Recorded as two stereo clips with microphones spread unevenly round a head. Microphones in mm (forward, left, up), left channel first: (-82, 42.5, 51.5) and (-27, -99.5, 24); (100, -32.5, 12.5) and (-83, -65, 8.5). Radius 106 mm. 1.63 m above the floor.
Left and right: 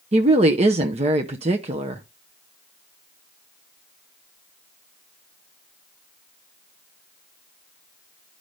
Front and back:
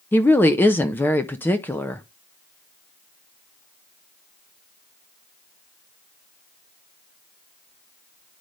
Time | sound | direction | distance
0.1 | a woman speaking | 50° right | 0.6 m